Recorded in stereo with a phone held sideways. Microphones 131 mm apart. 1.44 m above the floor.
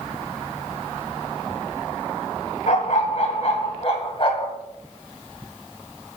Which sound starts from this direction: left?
A dog barking, at 2.7 s.